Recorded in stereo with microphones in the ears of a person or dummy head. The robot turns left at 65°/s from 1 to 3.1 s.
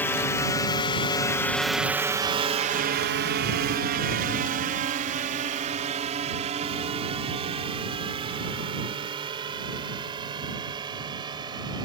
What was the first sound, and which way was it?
A drone, 10° left (ahead or behind).